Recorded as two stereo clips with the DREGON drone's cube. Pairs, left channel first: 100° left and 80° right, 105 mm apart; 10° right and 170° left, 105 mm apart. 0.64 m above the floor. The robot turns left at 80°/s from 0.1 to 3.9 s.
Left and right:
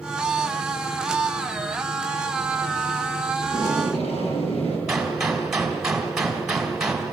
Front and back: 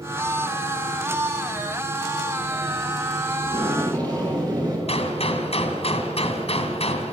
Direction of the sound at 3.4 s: 155° left.